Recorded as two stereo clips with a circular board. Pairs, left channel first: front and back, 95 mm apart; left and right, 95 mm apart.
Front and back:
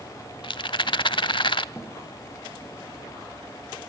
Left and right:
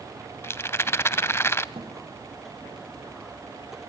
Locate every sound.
0.4 s a rattle: 25° left, 0.6 m
1.8 s a thud: 65° right, 5 m